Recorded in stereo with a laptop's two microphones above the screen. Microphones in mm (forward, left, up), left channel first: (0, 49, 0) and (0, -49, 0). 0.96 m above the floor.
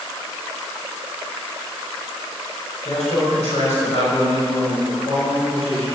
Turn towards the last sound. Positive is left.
turn(degrees=85)